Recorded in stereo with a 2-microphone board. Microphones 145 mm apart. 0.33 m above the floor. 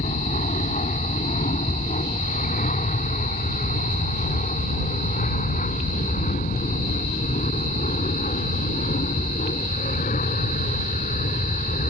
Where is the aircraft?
60° left (ahead or behind); by 11.9 s 70° left (ahead or behind).